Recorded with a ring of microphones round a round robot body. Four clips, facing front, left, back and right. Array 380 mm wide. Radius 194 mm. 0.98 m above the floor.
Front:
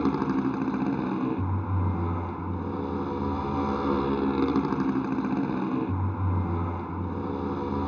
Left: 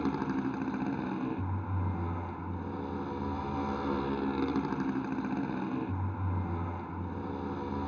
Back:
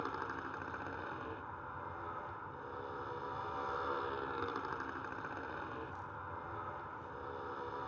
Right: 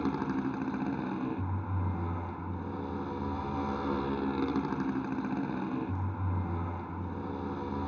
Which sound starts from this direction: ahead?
A motorcycle, at 0.0 s.